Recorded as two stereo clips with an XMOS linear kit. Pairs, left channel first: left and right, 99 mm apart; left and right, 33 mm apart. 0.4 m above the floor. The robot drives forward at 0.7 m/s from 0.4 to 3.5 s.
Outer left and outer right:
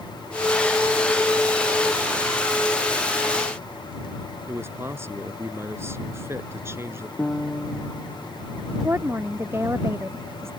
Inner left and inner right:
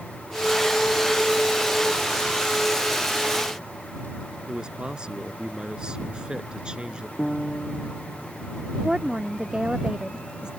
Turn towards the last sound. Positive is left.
turn(degrees=-25)  # may be behind; listen again after turning